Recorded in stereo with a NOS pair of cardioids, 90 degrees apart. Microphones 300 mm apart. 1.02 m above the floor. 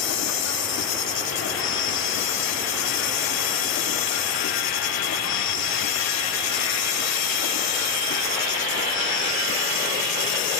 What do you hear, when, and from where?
0.0 s an insect: 65° left